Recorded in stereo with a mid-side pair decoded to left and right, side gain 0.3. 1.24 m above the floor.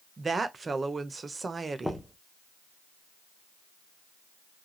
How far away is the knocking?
About 0.8 m.